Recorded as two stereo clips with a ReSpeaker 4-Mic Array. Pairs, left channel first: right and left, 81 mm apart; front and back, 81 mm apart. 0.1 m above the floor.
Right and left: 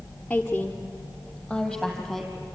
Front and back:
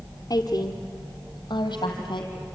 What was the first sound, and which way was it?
A woman speaking, 15° right.